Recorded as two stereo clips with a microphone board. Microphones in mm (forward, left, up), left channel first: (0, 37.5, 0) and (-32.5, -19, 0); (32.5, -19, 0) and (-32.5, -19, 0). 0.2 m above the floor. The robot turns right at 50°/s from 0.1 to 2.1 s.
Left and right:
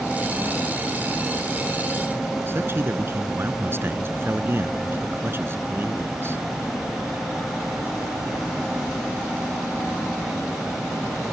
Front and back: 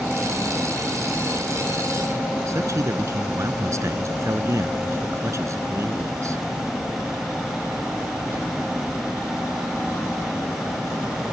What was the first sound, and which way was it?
A man speaking, 160° right.